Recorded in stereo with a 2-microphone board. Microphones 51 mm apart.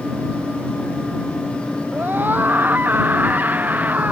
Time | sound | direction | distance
1.9 | a scream | 40° right (ahead or behind) | ?